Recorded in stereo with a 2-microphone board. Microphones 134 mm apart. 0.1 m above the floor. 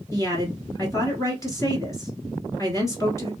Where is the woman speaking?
25° left (ahead or behind), 1.2 m.